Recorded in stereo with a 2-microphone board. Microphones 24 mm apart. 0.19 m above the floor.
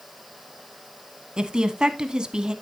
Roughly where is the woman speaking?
Right.